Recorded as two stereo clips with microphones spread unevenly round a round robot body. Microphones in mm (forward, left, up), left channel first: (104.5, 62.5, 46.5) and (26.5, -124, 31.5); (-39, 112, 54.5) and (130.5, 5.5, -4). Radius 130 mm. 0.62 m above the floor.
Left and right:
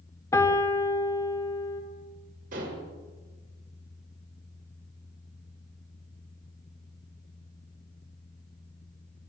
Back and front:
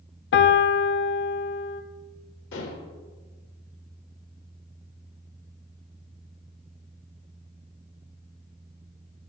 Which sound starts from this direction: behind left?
A piano, at 0.3 s.